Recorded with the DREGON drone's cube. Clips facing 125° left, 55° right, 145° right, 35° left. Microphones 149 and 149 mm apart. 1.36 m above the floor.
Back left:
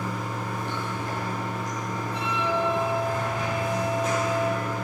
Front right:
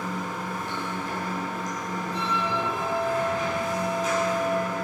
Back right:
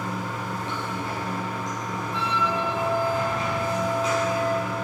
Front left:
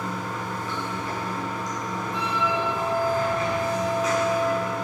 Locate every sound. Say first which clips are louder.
0.0 s running water: even, even; 155° left, 8.5 m
2.1 s a flute: back left 2 dB, even; 105° left, 5.5 m